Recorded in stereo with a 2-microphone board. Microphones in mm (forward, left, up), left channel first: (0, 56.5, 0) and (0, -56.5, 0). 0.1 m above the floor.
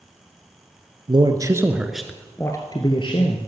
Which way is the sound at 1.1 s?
45° right (ahead or behind).